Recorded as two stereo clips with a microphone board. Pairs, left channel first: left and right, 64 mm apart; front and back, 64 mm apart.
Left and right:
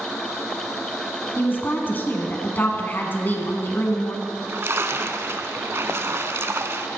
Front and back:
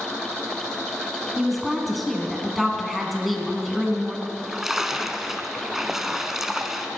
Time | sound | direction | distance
1.4 | a woman speaking | 90° left | 1.5 m
4.2 | a splash | 100° right | 0.7 m